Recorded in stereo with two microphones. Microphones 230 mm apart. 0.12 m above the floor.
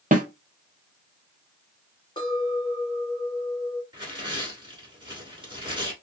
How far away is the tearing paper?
About 1.0 m.